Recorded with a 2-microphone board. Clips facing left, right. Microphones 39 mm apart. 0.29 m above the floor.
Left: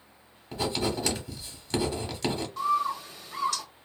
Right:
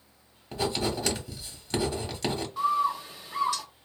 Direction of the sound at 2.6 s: 10° right (ahead or behind).